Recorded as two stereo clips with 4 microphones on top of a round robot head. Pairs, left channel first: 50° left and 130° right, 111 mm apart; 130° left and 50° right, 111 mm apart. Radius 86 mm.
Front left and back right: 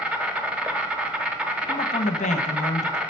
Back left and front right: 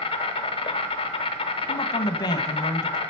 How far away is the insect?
About 0.8 m.